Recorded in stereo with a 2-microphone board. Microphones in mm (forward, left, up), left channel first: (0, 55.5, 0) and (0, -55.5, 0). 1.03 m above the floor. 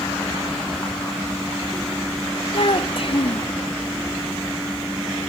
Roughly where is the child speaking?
Left.